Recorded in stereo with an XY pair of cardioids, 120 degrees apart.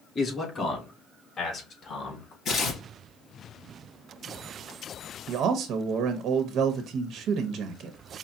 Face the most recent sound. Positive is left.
turn(degrees=-65)